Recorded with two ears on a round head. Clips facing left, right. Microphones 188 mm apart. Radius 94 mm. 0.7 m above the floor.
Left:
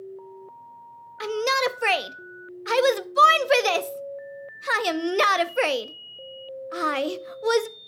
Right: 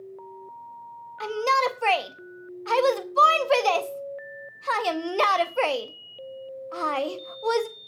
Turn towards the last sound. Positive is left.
turn(degrees=20)  # may be behind; listen again after turning